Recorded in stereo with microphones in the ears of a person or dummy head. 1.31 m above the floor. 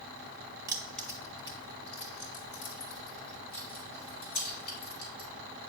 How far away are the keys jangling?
About 0.6 m.